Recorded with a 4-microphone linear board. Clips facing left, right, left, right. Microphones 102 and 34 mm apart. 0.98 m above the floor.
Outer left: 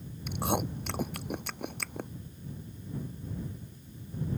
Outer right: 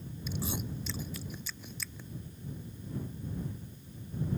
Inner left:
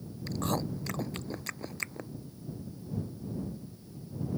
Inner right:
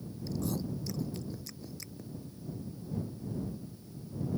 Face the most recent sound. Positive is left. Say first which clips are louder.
# outer left 7 dB, inner left 3 dB
turn(degrees=60)  # may be behind; listen again after turning